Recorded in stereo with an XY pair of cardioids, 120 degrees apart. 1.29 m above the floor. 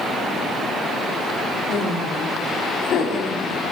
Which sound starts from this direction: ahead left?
Laughter, at 1.7 s.